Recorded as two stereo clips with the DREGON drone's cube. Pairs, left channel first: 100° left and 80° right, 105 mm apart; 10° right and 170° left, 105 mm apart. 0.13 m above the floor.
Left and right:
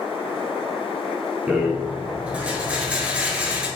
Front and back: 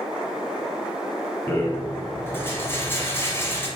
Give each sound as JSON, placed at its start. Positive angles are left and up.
{"t": 1.5, "sound": "a rattle", "azimuth_deg": -25, "distance_m": 1.2}